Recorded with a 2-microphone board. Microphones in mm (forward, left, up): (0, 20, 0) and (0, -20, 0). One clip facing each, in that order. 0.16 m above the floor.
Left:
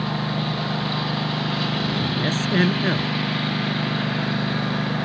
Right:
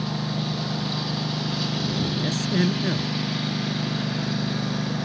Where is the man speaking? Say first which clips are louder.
Left 4 dB; 40° left (ahead or behind).